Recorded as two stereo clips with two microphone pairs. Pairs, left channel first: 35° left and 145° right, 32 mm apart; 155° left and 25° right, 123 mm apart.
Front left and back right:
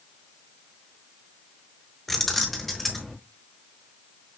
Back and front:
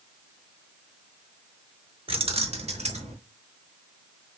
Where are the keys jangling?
45° right, 0.7 m; by 3.1 s 50° right, 1.2 m.